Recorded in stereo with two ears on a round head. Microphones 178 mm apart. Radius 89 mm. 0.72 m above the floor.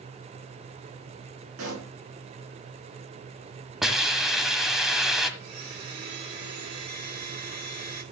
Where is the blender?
55° right (ahead or behind), 2.5 m.